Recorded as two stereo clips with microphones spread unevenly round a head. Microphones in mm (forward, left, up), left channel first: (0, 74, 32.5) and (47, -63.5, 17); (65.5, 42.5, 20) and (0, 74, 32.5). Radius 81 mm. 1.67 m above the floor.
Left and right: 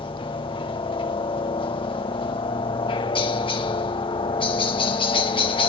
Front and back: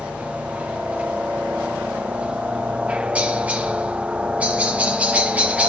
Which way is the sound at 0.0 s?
80° left.